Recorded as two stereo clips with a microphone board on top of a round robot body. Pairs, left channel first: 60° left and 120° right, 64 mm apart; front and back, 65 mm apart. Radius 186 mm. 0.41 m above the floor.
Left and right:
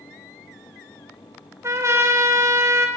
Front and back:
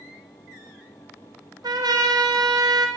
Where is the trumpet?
165° right, 0.6 m.